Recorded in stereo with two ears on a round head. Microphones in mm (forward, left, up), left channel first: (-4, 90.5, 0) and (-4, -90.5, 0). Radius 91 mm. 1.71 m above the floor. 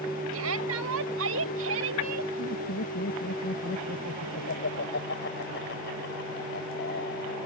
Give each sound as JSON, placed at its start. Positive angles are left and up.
{"t": 0.3, "sound": "a shout", "side_deg": -80}
{"t": 2.4, "sound": "laughter", "side_deg": 55}